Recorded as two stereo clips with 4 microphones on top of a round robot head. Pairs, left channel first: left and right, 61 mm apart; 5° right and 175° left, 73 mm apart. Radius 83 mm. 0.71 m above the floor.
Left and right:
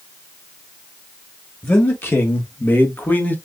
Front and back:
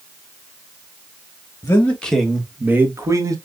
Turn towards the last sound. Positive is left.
turn(degrees=145)